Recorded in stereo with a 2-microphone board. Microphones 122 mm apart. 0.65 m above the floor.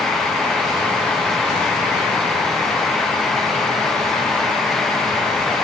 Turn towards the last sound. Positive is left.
No sound to turn to.